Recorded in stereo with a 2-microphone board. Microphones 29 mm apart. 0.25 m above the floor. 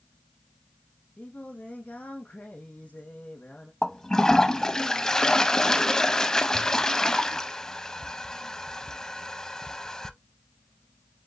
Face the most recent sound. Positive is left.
turn(degrees=25)  # may be behind; listen again after turning